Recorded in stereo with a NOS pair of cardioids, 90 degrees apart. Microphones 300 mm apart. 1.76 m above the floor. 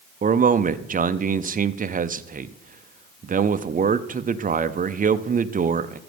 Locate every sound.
0.2 s a man speaking: 30° right, 0.7 m